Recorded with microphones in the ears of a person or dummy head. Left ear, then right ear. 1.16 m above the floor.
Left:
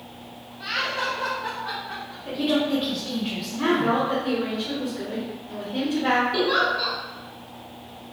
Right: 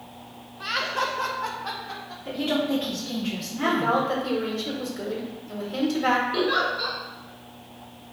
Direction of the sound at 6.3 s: 10° left (ahead or behind).